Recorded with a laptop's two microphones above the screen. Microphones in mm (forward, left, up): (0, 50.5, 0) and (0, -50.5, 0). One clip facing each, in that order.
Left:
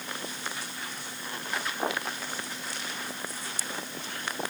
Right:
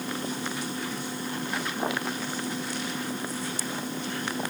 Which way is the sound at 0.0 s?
45° right (ahead or behind).